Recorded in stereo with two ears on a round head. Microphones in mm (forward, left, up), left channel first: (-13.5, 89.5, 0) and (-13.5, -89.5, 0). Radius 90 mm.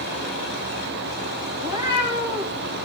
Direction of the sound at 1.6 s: 20° right (ahead or behind).